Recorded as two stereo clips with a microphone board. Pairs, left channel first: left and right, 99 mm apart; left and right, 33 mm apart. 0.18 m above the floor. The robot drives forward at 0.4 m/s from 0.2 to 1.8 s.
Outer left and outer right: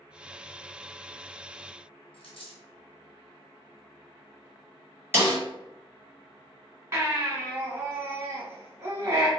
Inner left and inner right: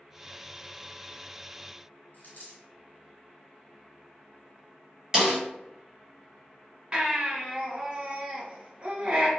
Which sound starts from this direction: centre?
A snare drum, at 5.1 s.